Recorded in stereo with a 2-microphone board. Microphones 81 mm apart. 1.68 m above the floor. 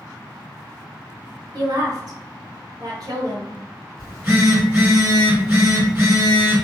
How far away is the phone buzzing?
About 1.5 m.